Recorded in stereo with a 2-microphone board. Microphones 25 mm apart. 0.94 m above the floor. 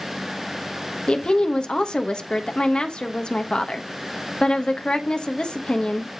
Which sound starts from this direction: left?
A woman speaking, at 1.1 s.